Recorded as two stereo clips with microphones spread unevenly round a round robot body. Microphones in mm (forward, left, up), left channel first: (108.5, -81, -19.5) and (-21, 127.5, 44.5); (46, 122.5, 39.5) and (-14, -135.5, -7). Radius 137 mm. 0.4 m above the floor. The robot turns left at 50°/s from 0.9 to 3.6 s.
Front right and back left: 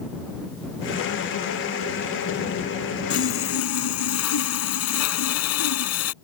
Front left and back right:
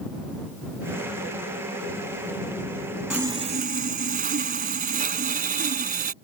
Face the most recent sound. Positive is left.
turn(degrees=-45)